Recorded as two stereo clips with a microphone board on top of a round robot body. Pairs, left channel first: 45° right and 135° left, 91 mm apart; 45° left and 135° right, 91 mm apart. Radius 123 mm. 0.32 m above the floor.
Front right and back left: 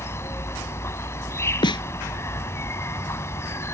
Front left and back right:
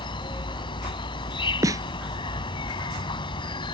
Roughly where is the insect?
Ahead.